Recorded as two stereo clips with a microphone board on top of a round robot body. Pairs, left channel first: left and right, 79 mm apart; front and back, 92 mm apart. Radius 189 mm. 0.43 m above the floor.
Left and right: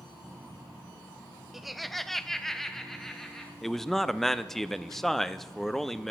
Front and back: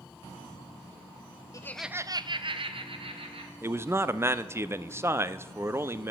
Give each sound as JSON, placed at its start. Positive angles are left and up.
{"t": 1.5, "sound": "laughter", "azimuth_deg": -5, "distance_m": 0.8}
{"t": 3.6, "sound": "a man speaking", "azimuth_deg": 170, "distance_m": 0.7}